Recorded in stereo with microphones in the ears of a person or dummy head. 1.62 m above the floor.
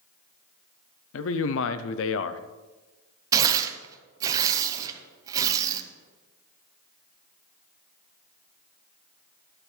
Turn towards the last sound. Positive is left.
turn(degrees=-15)  # may be behind; listen again after turning